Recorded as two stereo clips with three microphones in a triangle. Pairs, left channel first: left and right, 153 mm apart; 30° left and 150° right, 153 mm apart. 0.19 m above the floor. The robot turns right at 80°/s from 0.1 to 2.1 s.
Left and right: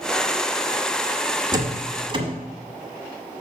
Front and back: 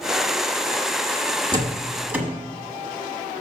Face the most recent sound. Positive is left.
turn(degrees=-80)